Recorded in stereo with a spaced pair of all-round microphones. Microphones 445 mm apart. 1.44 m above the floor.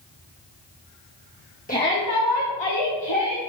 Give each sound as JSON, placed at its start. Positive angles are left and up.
{"t": 1.7, "sound": "a shout", "side_deg": 20, "distance_m": 1.4}